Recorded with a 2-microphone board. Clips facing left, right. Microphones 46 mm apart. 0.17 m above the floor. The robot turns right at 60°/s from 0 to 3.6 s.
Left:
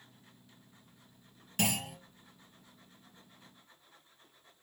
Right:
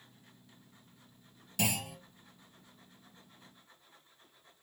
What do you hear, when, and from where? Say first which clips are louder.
1.6 s a clunk: left 1 dB; 45° left (ahead or behind), 2.5 m; by 2.0 s 35° left (ahead or behind), 2.5 m